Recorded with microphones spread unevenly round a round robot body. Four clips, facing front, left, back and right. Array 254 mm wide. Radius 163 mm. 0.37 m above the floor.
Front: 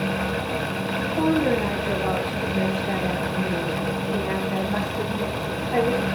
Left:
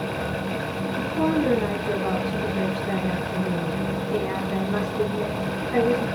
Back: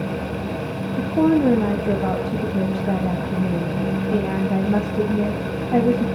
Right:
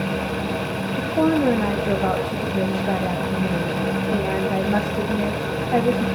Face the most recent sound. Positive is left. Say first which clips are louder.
# right 4 dB, back 5 dB
turn(degrees=-150)